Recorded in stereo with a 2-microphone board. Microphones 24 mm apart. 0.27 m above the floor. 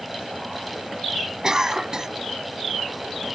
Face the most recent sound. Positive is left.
turn(degrees=-25)  # may be behind; listen again after turning